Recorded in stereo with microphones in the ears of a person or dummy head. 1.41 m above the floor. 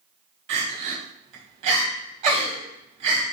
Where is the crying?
35° right (ahead or behind), 1.1 m.